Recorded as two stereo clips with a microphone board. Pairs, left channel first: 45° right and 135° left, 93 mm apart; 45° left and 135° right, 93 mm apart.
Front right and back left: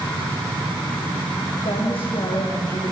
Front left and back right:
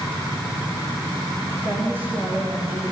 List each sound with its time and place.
1.6 s a woman speaking: 65° right, 8 m; by 2.9 s 75° right, 8.5 m